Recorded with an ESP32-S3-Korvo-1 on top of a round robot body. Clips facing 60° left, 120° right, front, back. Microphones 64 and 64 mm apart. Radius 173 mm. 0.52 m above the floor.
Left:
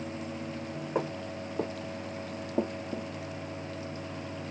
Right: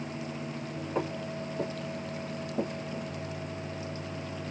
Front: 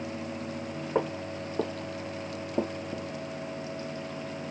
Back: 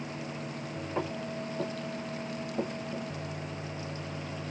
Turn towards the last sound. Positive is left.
turn(degrees=70)